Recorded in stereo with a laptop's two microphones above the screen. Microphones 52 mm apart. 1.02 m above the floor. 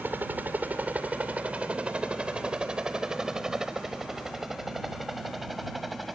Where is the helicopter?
35° right (ahead or behind); by 6.2 s centre (ahead or behind).